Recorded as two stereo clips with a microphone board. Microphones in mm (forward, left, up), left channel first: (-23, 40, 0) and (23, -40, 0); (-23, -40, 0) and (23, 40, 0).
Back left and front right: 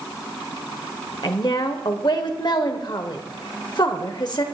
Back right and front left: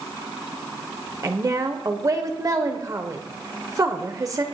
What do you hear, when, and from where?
1.2 s a woman speaking: 100° left, 1.3 m